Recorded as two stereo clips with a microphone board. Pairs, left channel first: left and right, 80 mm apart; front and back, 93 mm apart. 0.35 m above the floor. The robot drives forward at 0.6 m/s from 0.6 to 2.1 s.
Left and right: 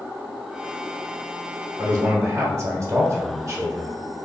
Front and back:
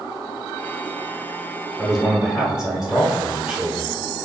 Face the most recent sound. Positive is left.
turn(degrees=-100)